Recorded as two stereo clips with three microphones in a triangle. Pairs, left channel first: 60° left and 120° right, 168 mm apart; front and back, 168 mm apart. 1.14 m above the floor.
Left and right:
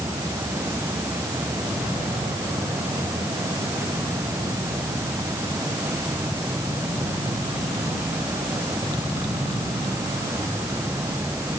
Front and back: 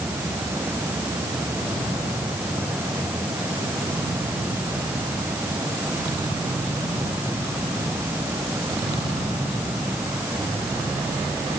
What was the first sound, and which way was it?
Only background noise.